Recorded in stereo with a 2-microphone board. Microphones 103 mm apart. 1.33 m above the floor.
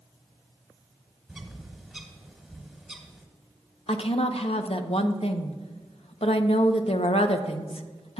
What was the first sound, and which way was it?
A bird, centre (ahead or behind).